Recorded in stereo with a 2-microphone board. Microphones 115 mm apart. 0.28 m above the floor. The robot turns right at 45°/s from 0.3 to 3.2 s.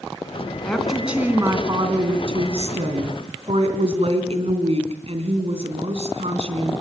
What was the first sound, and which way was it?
A woman speaking, 170° left.